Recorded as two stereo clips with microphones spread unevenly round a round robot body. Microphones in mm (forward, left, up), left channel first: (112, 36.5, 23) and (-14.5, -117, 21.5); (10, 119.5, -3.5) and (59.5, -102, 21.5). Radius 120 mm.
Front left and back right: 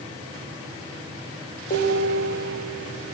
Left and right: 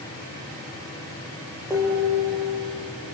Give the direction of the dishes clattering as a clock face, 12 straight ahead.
12 o'clock.